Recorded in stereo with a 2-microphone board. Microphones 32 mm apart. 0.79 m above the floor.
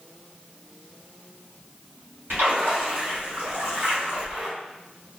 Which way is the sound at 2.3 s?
80° right.